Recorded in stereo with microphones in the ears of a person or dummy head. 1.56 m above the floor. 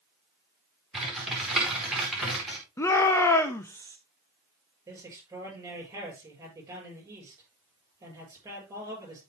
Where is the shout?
15° left (ahead or behind), 0.6 m.